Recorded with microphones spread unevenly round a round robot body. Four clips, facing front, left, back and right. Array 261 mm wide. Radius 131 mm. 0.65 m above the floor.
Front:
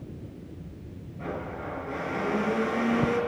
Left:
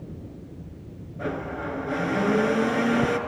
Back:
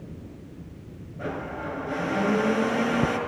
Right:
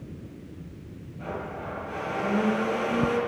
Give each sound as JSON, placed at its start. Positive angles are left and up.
{"t": 1.2, "sound": "a blender", "azimuth_deg": 120, "distance_m": 4.5}